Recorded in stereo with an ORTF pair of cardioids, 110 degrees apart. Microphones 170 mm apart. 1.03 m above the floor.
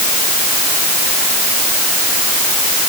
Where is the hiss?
No hiss in this recording.